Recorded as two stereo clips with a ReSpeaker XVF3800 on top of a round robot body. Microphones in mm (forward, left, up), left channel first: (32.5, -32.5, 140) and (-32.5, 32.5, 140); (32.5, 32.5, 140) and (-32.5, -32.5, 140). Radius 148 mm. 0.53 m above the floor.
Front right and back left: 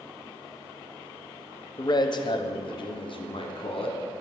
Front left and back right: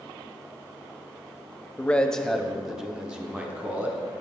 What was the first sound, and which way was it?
A man speaking, 25° right.